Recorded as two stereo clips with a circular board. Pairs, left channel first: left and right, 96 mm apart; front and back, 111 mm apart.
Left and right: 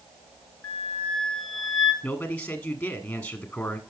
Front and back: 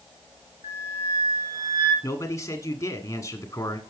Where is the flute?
160° left, 2.5 m.